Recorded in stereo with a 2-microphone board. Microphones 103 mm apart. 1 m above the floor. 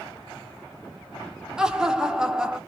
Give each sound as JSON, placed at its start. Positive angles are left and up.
{"t": 1.6, "sound": "laughter", "side_deg": -5, "distance_m": 0.5}